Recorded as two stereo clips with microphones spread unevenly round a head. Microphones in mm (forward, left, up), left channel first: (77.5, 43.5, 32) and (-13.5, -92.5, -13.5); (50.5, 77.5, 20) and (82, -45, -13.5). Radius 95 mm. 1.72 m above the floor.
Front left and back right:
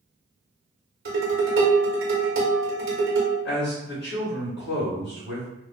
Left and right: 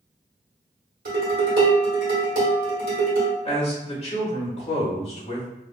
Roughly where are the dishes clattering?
Right.